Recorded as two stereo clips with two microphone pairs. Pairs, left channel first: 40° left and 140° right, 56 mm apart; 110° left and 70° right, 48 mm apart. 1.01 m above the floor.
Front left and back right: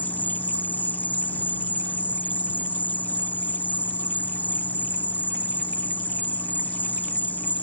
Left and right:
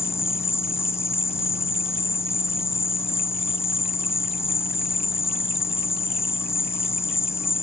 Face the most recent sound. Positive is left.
turn(degrees=100)